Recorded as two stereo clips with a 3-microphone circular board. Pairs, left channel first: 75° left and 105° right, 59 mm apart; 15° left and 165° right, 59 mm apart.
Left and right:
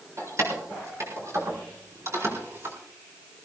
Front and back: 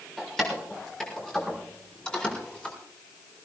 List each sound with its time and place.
0.2 s keys jangling: 70° right, 6.5 m; by 2.8 s 60° right, 4 m